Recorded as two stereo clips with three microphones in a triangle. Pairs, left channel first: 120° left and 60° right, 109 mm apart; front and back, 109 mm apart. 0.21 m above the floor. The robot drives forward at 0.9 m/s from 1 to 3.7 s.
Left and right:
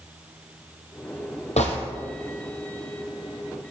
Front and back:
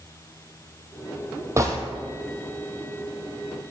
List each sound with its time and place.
1.6 s a gunshot: 115° left, 2 m; by 1.8 s 120° left, 2 m